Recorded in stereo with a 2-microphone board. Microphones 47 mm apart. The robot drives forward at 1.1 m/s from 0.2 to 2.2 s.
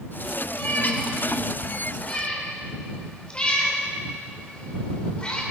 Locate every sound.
0.5 s a cat meowing: 50° left (ahead or behind), 1.7 m; by 5.4 s 25° left (ahead or behind), 3 m